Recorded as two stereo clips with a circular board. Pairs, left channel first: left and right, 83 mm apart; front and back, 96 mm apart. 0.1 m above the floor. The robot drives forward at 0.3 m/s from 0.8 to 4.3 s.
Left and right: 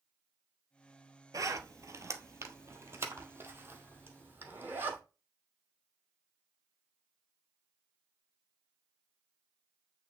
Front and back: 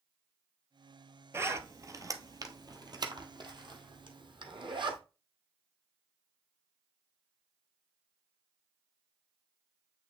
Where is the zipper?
125° right, 0.9 m; by 5.0 s 155° right, 1.6 m.